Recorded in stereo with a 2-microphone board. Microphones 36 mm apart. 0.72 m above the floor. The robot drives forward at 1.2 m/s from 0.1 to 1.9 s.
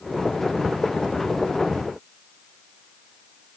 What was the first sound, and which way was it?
Only background noise.